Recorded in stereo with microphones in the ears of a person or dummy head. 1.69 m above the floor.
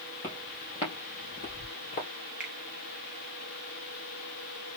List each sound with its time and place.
0.2 s footsteps: 20° left (ahead or behind), 2.5 m; by 2.1 s 50° left (ahead or behind), 2.5 m
2.4 s a finger snap: 5° right (ahead or behind), 0.7 m